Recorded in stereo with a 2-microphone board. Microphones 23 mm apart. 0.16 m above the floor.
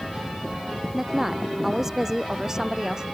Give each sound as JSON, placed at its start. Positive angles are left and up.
{"t": 0.9, "sound": "a woman speaking", "side_deg": -10}